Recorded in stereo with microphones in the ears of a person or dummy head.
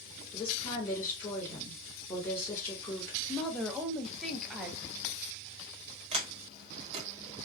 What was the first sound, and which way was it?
A woman speaking, 15° left (ahead or behind).